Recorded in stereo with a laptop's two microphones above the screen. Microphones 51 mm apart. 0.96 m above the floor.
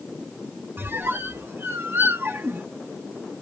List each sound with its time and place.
0.8 s a squeak: 50° right (ahead or behind), 0.5 m